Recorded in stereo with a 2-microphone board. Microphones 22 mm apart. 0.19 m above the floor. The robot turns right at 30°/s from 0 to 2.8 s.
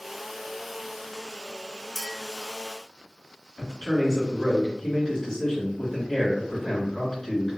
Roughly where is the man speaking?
Left.